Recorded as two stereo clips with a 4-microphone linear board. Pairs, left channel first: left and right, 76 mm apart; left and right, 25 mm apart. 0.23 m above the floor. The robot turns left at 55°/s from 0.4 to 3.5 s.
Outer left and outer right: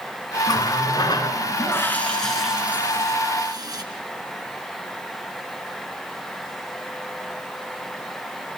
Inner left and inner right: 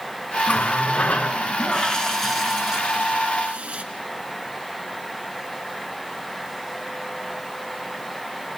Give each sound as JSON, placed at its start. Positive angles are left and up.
{"t": 0.5, "sound": "a running tap", "azimuth_deg": 105, "distance_m": 2.0}